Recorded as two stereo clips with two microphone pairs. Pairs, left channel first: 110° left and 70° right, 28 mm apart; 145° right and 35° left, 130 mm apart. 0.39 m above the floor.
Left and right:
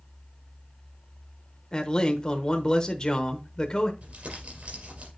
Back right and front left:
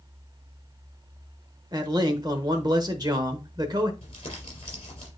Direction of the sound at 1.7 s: 75° left.